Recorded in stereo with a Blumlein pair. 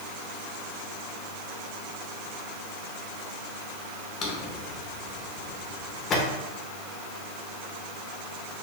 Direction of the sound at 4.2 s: 25° left.